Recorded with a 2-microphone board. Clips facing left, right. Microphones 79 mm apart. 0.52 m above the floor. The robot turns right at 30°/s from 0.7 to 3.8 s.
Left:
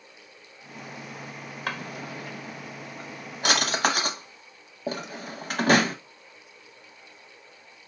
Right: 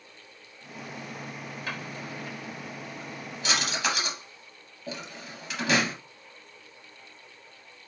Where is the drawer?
60° left (ahead or behind), 0.8 m; by 6.0 s 50° left (ahead or behind), 0.8 m.